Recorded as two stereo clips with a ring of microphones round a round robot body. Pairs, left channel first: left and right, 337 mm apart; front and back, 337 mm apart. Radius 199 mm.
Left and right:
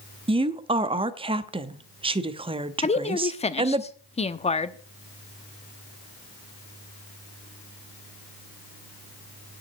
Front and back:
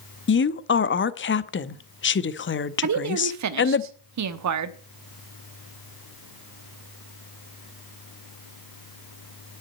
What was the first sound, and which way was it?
A woman speaking, 25° right.